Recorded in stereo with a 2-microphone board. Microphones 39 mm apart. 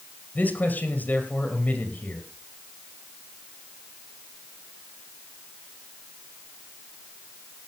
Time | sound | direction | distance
0.3 | a man speaking | 45° left (ahead or behind) | 2.5 m